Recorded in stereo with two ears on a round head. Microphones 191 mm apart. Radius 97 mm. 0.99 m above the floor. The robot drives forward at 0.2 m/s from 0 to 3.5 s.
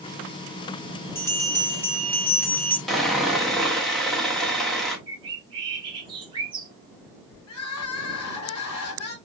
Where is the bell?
10° left (ahead or behind), 1.2 m.